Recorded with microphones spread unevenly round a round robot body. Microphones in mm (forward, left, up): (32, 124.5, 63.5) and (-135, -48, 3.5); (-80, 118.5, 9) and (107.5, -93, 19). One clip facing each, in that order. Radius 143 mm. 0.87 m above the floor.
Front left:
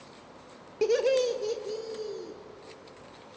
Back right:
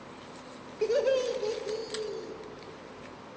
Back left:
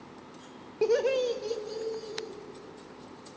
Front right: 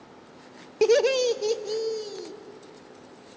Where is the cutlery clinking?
No cutlery clinking in this recording.